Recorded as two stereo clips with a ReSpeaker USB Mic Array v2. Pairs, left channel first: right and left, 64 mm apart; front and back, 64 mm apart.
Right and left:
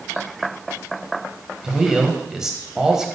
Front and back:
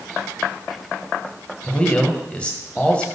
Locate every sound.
1.6 s a man speaking: 25° left, 0.9 m